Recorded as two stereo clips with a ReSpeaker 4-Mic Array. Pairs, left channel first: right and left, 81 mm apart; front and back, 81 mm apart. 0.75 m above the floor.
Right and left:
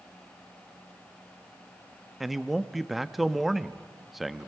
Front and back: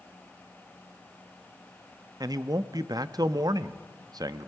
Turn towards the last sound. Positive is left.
turn(degrees=180)